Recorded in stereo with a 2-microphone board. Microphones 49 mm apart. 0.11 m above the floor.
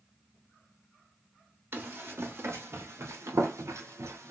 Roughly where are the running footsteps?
Right.